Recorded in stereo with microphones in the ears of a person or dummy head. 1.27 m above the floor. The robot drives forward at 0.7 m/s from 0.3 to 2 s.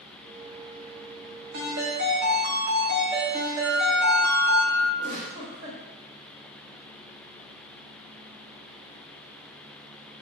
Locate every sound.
1.5 s a ringtone: 65° right (ahead or behind), 0.9 m; by 4.6 s 50° right (ahead or behind), 1.0 m
3.6 s a flute: 60° right (ahead or behind), 1.7 m
5.0 s a giggle: 45° right (ahead or behind), 1.4 m